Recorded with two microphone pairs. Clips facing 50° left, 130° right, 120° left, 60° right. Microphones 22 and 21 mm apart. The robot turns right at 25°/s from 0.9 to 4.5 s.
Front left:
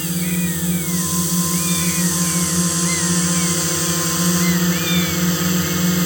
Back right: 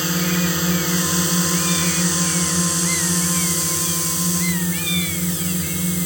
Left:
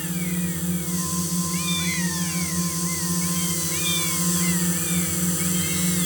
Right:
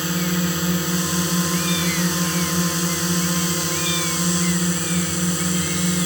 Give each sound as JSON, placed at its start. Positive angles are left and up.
{"t": 0.0, "sound": "a drone", "azimuth_deg": -85}